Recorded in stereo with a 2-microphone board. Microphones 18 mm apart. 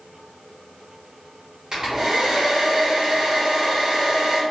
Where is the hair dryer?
45° right (ahead or behind), 1.3 m.